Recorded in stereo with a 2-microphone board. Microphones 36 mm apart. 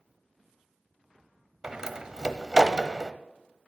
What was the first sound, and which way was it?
A door slam, 20° right (ahead or behind).